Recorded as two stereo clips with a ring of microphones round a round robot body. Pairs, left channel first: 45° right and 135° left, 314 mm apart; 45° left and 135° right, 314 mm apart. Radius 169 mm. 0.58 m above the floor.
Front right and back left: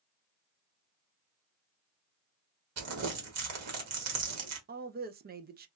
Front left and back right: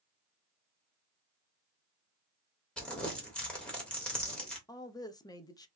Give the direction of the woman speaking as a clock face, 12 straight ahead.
8 o'clock.